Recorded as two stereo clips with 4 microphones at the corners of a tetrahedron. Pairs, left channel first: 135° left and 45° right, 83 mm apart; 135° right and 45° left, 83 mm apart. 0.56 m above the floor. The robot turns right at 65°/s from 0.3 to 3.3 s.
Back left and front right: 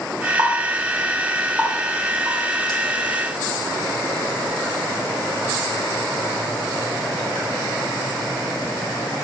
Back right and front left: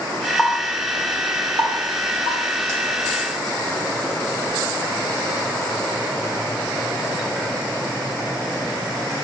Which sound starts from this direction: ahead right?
A running tap, at 0.4 s.